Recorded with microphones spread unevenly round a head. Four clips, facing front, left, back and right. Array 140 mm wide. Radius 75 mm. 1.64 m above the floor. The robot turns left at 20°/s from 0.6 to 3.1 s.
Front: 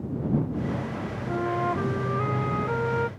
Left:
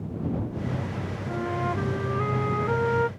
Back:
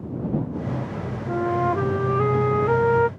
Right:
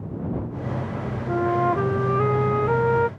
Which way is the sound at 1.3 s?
125° right.